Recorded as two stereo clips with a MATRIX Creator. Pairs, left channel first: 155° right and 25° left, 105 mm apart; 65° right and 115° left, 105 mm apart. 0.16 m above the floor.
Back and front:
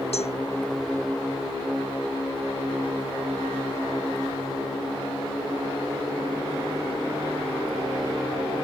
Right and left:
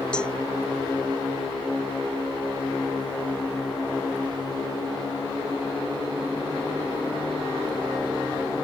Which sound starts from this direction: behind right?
A cowbell, at 0.1 s.